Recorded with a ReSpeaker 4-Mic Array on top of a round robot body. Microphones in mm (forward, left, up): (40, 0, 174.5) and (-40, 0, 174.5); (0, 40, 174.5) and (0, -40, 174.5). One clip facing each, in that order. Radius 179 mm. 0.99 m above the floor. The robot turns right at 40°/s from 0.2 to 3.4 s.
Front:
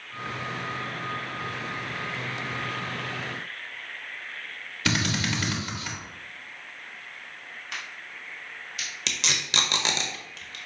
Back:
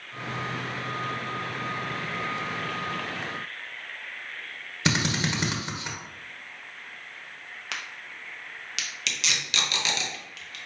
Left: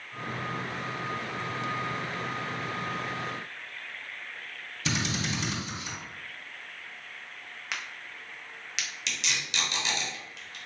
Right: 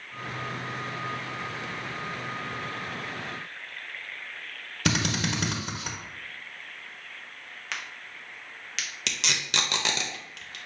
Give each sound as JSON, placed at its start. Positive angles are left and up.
{"t": 4.8, "sound": "a drill", "azimuth_deg": -115, "distance_m": 1.0}
{"t": 7.7, "sound": "a crack", "azimuth_deg": 175, "distance_m": 0.7}
{"t": 9.1, "sound": "tape being pulled", "azimuth_deg": -55, "distance_m": 0.5}